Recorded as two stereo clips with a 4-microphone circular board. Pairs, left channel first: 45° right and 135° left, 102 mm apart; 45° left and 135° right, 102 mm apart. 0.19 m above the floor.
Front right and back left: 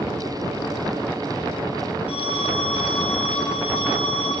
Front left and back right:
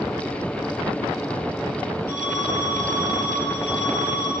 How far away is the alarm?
About 8 m.